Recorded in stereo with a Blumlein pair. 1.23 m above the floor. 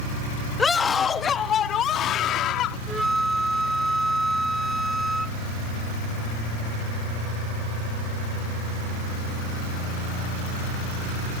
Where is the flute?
5° right.